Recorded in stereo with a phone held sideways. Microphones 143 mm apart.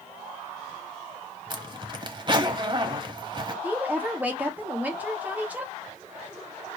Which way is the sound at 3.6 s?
10° right (ahead or behind).